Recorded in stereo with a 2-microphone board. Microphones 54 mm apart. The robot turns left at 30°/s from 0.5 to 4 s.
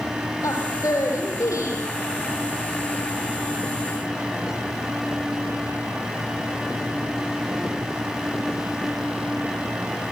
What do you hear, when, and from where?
0.4 s a woman speaking: 105° left, 8.5 m; by 1.8 s 65° left, 8.5 m